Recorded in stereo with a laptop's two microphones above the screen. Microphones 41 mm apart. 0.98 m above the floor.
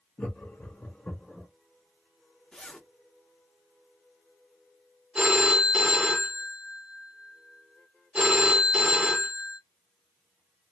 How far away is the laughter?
About 1.0 m.